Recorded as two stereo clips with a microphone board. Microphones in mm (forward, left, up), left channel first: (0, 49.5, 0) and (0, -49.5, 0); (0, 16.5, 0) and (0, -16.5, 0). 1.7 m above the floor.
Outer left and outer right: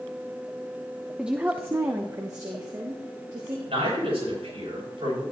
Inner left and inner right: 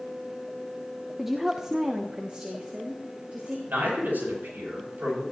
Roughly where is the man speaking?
Right.